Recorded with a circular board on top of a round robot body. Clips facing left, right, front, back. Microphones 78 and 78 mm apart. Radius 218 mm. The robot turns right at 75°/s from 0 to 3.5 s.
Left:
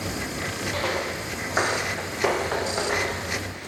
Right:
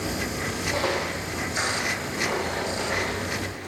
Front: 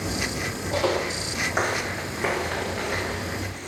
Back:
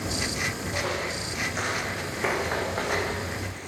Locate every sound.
0.7 s footsteps: 15° right, 0.7 m; by 3.2 s 160° left, 3 m